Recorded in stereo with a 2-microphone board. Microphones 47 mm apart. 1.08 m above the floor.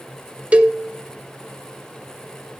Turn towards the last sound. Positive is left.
turn(degrees=-25)  # may be behind; listen again after turning